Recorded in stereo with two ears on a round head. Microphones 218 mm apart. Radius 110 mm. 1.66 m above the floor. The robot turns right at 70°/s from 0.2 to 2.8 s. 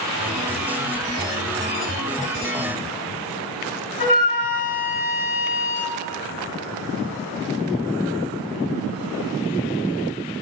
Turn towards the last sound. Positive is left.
turn(degrees=30)  # may be behind; listen again after turning